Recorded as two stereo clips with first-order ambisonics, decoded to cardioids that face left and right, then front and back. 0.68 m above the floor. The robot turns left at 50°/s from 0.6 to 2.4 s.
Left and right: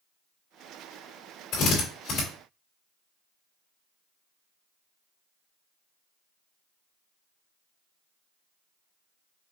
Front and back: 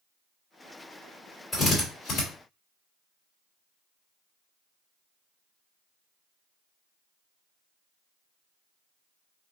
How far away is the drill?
About 2.5 m.